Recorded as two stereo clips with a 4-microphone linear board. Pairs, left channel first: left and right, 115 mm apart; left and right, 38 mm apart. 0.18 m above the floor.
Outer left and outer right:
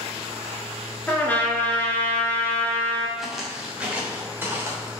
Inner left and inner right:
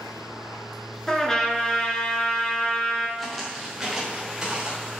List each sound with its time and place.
1.1 s a trumpet: 15° left (ahead or behind), 1.6 m
3.2 s footsteps: centre (ahead or behind), 2 m; by 4.9 s 20° right (ahead or behind), 3.5 m